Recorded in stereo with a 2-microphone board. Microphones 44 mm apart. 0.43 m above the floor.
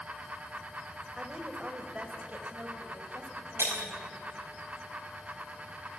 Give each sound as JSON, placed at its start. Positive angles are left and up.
{"t": 1.2, "sound": "a woman speaking", "side_deg": -15, "distance_m": 2.0}
{"t": 3.6, "sound": "breaking glass", "side_deg": -70, "distance_m": 6.0}